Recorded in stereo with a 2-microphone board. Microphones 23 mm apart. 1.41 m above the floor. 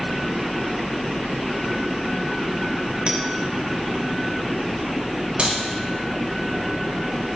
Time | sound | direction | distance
3.1 | a clink | 65° right (ahead or behind) | 2.5 m
5.4 | a clap | 65° right (ahead or behind) | 4.5 m